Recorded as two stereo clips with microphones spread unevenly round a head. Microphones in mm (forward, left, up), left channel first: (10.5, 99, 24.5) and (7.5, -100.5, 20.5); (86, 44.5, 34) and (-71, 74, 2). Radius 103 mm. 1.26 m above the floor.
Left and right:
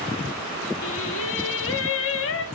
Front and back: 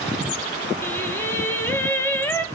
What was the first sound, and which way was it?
Singing, 65° left.